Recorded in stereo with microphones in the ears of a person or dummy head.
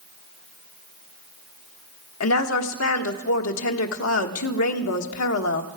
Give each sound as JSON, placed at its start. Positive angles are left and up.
{"t": 2.2, "sound": "a woman speaking", "side_deg": 75, "distance_m": 1.3}